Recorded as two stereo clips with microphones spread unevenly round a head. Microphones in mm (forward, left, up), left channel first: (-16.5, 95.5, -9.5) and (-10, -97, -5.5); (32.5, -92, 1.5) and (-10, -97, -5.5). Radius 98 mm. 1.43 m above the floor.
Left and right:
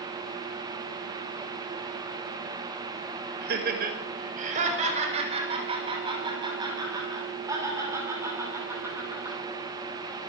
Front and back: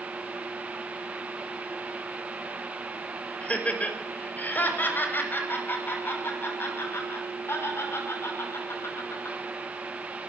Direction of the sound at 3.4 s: 50° right.